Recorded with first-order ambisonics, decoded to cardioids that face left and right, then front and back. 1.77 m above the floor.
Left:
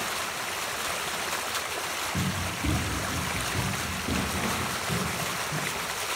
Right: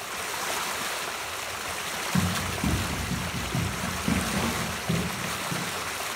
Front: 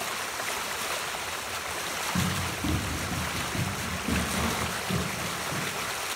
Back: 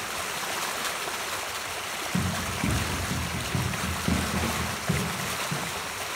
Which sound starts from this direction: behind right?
Running footsteps, at 2.1 s.